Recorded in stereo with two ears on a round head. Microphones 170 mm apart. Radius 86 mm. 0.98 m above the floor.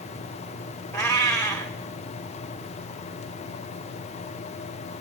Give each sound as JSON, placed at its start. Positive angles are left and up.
{"t": 0.9, "sound": "a cat meowing", "side_deg": 15, "distance_m": 1.5}